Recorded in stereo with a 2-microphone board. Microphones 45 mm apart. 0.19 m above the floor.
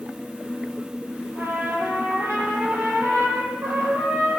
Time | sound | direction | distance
1.4 | a trumpet | 65° right (ahead or behind) | 5.5 m